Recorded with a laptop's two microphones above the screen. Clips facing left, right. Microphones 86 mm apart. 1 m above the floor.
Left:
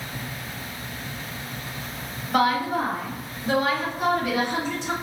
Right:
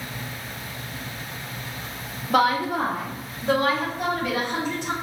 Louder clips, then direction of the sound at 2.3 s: Right 1 dB; 70° right (ahead or behind).